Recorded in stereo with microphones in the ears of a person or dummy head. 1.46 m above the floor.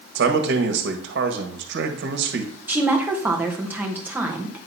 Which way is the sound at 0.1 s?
65° right (ahead or behind).